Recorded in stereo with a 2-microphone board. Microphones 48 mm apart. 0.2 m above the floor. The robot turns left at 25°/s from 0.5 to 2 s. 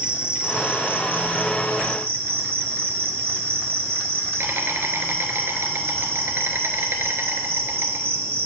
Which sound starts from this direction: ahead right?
An insect, at 0.0 s.